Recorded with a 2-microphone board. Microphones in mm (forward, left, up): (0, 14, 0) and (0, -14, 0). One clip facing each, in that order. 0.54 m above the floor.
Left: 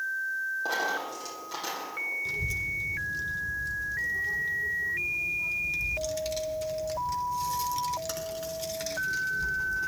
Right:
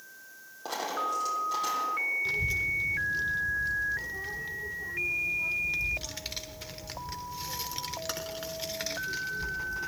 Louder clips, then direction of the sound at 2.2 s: Right 2 dB; 30° right (ahead or behind).